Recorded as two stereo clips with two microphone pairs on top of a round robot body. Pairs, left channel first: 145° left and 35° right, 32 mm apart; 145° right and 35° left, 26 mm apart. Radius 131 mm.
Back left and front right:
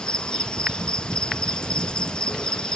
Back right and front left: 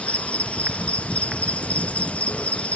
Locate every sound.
0.0 s an insect: 155° right, 0.9 m